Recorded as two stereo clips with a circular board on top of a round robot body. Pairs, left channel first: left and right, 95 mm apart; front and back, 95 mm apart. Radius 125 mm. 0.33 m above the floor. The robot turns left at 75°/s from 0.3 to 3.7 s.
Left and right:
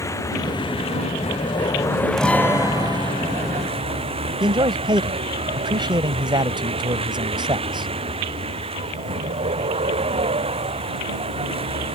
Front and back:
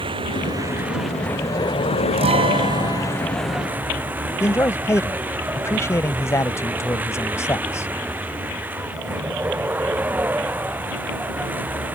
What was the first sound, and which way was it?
A vehicle, 150° left.